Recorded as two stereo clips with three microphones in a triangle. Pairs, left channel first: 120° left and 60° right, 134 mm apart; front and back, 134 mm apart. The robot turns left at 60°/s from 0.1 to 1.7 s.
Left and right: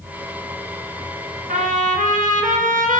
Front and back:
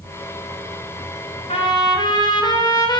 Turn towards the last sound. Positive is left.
turn(degrees=-60)